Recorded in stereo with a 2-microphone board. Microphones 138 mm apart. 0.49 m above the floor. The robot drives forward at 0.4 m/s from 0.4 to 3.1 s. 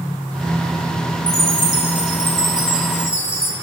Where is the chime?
55° left (ahead or behind), 1.8 m.